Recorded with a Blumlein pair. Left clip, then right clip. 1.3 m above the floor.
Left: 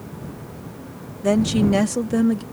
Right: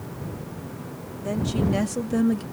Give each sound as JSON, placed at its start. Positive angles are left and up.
{"t": 1.2, "sound": "a woman speaking", "azimuth_deg": 30}